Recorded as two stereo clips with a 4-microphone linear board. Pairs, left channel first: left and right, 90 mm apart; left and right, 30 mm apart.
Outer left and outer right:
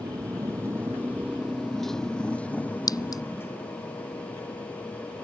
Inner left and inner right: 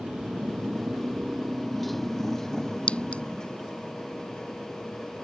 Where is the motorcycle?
50° right (ahead or behind); by 5.2 s 35° left (ahead or behind).